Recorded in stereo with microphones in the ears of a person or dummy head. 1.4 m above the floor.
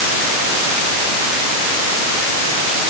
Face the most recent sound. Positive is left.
No sound to turn to.